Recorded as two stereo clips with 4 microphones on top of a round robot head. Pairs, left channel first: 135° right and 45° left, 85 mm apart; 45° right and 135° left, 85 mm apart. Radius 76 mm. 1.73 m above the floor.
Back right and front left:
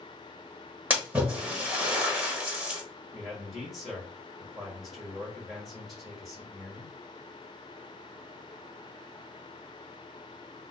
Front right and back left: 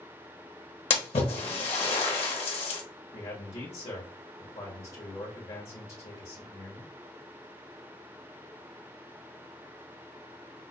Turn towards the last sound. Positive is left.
turn(degrees=-45)